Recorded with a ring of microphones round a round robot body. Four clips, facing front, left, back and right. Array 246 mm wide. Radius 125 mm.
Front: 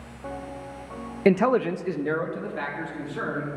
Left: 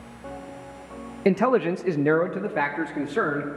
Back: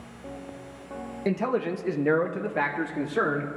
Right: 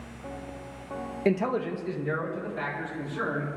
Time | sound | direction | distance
1.2 | a man speaking | 25° left | 0.5 m